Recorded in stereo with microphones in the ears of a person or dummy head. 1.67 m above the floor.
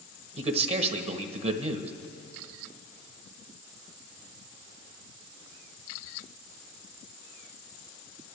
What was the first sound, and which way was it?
A man speaking, 30° right (ahead or behind).